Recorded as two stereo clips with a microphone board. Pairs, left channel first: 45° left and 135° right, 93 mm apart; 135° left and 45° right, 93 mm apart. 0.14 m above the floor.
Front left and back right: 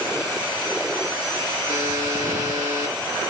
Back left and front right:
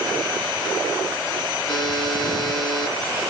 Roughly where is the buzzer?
Behind right.